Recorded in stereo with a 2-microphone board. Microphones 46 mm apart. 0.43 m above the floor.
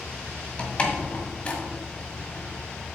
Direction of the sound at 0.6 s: 25° left (ahead or behind).